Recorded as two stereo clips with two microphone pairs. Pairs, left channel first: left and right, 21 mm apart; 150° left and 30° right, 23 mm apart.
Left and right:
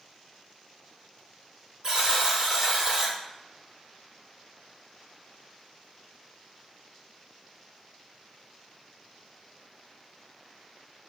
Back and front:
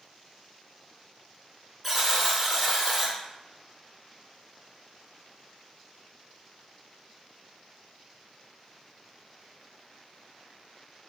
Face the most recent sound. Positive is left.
turn(degrees=-110)